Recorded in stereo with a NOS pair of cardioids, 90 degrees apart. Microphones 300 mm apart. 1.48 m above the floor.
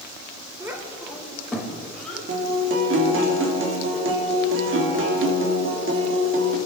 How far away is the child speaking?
About 3.5 m.